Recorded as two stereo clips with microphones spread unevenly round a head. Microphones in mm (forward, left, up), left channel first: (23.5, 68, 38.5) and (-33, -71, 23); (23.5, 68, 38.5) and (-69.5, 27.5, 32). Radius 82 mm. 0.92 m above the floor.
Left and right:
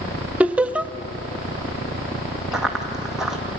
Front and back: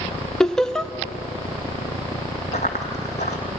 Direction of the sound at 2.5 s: 20° right.